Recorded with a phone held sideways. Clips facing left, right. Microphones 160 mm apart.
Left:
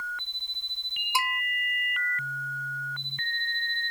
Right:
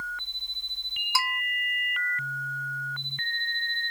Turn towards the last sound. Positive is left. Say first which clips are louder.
# left 1 dB
turn(degrees=20)  # may be behind; listen again after turning